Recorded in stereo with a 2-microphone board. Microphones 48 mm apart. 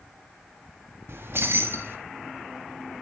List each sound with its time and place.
1.1 s keys jangling: 55° right (ahead or behind), 1.0 m